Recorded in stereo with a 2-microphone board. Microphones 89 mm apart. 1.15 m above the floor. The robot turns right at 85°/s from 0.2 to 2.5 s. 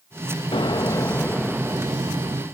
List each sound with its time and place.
0.5 s an explosion: 100° left, 0.6 m; by 2.4 s 95° right, 0.6 m